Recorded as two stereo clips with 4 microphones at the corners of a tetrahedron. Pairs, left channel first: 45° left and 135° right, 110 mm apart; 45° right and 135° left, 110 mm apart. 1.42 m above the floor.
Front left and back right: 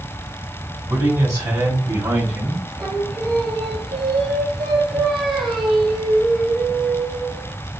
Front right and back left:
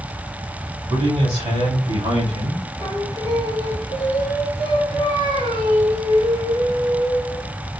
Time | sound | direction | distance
0.9 | a man speaking | 160° left | 3.5 m
2.8 | singing | 135° left | 2.5 m